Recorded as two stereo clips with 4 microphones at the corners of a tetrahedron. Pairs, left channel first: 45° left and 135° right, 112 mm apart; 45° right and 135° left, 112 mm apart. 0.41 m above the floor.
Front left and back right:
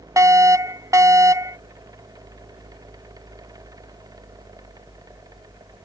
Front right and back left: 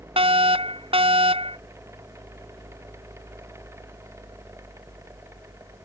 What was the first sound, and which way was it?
A fire alarm, 165° left.